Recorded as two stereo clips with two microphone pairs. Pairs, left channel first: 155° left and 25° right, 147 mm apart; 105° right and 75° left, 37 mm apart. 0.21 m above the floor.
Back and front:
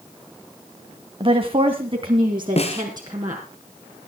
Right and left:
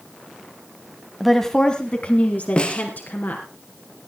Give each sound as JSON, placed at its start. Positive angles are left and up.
{"t": 1.2, "sound": "a woman speaking", "azimuth_deg": -5, "distance_m": 1.2}
{"t": 2.6, "sound": "a snare drum", "azimuth_deg": -165, "distance_m": 2.0}